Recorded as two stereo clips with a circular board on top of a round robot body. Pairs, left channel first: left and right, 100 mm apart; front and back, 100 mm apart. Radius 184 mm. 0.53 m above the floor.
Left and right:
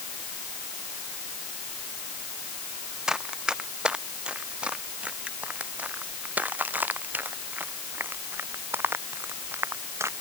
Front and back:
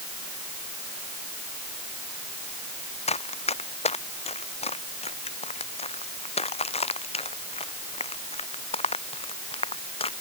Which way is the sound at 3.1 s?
5° right.